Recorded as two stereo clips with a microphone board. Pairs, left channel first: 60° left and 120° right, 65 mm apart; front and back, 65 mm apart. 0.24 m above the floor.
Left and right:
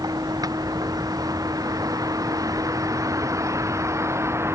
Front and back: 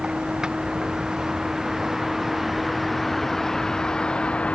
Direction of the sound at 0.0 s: 100° right.